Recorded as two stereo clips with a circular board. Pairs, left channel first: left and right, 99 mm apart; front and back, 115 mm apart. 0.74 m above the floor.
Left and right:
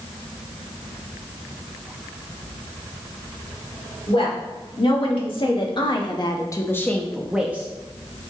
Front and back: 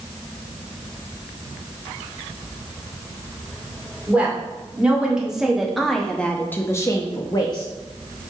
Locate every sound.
4.1 s a woman speaking: 100° left, 2 m; by 7.7 s 30° right, 0.9 m